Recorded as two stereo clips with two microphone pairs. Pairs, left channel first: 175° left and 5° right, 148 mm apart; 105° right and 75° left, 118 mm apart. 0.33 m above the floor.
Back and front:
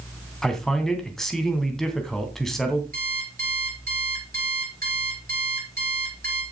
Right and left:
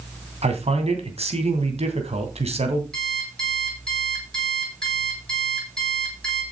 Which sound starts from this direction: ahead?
An alarm clock, at 2.9 s.